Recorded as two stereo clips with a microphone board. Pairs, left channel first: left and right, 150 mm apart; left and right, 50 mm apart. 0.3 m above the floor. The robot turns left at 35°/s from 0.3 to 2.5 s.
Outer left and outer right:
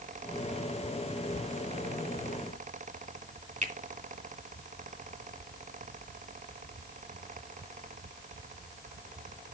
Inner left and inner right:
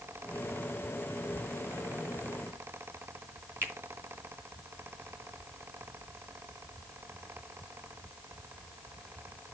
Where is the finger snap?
55° right (ahead or behind), 3 m.